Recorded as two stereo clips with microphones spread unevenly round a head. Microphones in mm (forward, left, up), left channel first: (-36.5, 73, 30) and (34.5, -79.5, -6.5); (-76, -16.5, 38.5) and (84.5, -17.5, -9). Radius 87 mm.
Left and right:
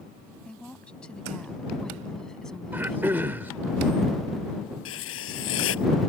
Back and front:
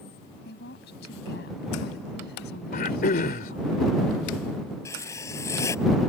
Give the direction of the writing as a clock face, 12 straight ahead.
8 o'clock.